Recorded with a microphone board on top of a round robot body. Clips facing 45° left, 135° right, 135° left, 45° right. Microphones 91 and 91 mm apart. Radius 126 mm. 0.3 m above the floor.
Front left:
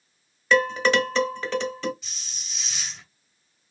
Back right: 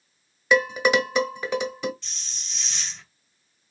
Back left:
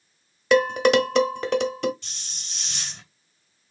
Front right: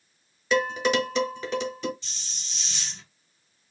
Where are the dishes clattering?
150° left, 1.3 m.